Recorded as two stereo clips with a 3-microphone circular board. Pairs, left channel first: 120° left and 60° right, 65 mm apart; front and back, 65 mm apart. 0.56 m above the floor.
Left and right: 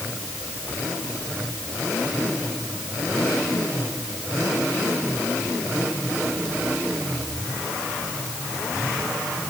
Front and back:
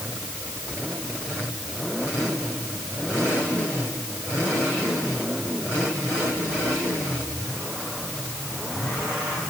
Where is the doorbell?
I don't hear a doorbell.